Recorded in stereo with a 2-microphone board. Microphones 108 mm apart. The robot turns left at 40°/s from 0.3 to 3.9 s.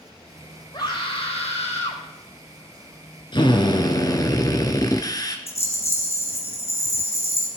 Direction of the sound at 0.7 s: 140° left.